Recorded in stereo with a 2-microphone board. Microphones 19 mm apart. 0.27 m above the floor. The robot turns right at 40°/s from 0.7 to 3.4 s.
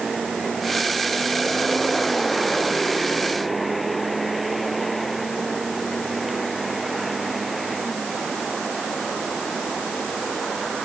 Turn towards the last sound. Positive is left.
No sound to turn to.